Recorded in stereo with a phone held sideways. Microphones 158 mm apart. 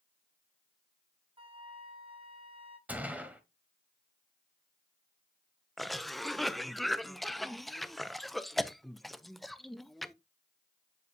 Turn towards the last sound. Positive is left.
turn(degrees=0)  # may be behind; listen again after turning